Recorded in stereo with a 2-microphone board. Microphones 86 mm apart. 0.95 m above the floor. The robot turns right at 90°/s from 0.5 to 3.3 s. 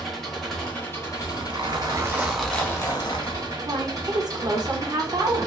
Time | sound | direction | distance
0.0 | an engine running | 5° left | 0.9 m
1.2 | a zipper | 110° right | 0.9 m
3.6 | a woman speaking | 50° right (ahead or behind) | 0.8 m